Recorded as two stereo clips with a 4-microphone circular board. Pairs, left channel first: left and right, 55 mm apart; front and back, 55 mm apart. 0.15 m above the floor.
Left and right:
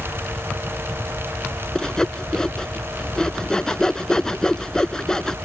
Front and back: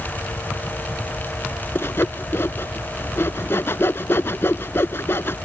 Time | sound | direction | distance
1.8 | sawing | 15° left | ?